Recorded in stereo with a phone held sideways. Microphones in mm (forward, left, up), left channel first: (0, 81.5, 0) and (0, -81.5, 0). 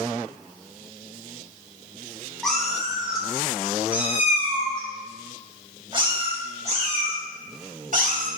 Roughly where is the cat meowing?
Centre.